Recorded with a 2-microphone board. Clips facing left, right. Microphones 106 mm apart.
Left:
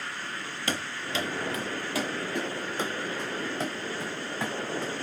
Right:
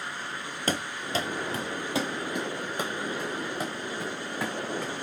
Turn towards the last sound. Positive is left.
turn(degrees=-5)  # may be behind; listen again after turning